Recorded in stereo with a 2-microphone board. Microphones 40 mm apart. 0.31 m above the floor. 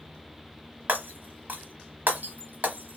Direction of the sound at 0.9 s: 55° right (ahead or behind).